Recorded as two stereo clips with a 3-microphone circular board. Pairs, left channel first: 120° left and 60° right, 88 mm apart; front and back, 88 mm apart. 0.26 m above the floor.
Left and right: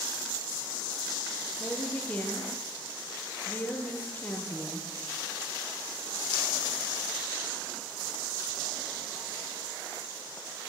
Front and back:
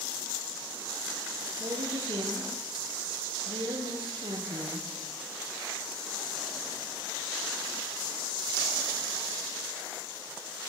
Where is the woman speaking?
170° right, 5 m.